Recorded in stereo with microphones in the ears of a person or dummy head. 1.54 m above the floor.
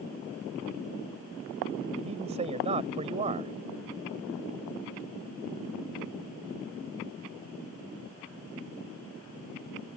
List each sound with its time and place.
2.0 s a man speaking: 30° right (ahead or behind)